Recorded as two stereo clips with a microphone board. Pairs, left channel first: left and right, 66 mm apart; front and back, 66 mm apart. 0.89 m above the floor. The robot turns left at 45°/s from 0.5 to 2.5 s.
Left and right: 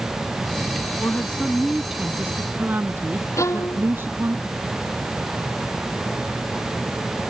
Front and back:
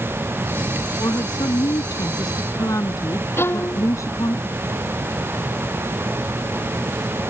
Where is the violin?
50° left.